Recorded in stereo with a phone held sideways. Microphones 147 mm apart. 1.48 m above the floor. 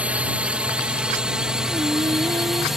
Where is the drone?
10° right (ahead or behind); by 2.8 s centre (ahead or behind).